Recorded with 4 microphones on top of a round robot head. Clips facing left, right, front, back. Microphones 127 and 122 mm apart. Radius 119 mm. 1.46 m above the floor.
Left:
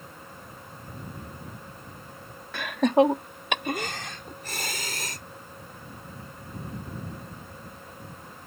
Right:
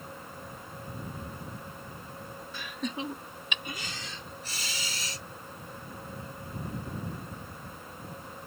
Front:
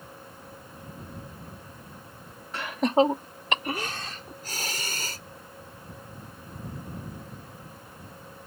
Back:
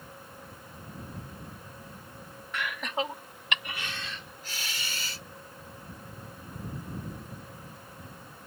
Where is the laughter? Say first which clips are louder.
Left 16 dB, front 11 dB; 60° left; by 5.2 s 50° left.